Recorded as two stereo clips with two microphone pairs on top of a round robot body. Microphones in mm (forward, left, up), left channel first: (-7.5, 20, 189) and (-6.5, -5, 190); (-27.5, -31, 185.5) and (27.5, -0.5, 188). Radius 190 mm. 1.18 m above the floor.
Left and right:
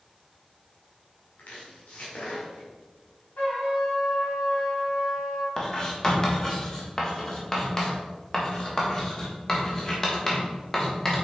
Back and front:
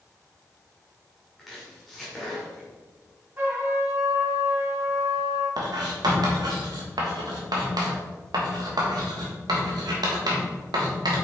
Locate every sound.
1.4 s chopping: 115° left, 1.6 m
3.4 s a trumpet: 90° left, 1.8 m
5.6 s writing: 25° left, 1.6 m